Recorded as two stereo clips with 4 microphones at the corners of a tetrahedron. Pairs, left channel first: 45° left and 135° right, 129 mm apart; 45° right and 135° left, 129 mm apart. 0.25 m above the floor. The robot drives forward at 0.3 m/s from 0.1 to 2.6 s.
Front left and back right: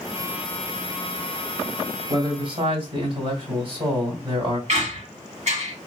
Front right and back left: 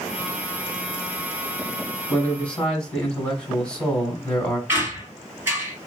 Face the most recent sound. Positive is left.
turn(degrees=-150)